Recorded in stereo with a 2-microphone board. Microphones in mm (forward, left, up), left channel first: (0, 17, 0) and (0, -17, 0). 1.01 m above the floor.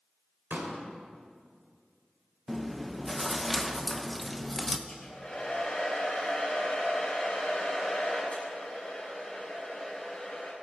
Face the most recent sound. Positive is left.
turn(degrees=40)  # may be behind; listen again after turning